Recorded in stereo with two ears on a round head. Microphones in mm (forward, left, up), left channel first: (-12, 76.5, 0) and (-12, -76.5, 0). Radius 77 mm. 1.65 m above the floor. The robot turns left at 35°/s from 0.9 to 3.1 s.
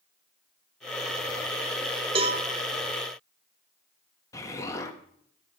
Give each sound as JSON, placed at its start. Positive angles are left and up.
{"t": 2.1, "sound": "a cowbell", "side_deg": -35, "distance_m": 1.6}
{"t": 4.3, "sound": "an explosion", "side_deg": 20, "distance_m": 1.1}